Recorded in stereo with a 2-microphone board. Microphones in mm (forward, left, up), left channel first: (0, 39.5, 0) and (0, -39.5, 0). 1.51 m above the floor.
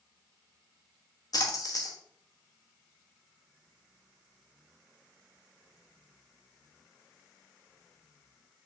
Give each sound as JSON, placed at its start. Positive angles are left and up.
{"t": 1.3, "sound": "a splash", "side_deg": 50, "distance_m": 1.1}